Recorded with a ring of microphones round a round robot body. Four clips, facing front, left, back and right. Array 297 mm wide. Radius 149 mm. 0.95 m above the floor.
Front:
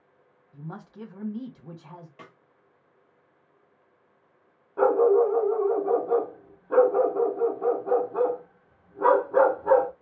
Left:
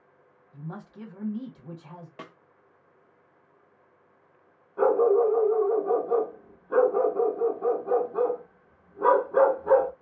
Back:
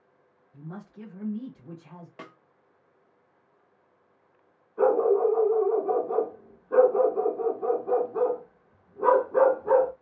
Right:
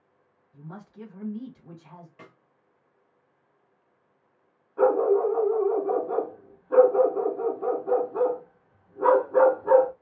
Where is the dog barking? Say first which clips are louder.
Even, front 2 dB; 5° left, 1.3 m.